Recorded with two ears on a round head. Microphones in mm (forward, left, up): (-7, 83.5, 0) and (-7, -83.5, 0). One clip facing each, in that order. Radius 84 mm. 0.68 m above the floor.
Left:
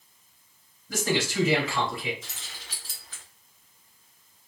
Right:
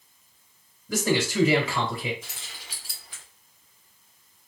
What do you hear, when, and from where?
0.9 s a man speaking: 75° right (ahead or behind), 2 m
2.2 s keys jangling: 10° right (ahead or behind), 1.0 m